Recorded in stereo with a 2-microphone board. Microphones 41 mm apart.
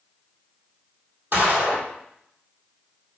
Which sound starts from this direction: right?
A gunshot, at 1.3 s.